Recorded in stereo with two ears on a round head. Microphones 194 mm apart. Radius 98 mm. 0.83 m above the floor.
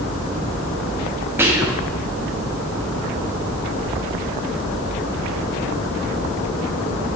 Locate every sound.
1.4 s whispering: 10° right (ahead or behind), 1.1 m